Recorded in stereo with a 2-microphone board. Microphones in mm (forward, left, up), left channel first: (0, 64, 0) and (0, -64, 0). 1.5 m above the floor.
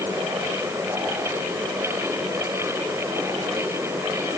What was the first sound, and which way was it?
Only background noise.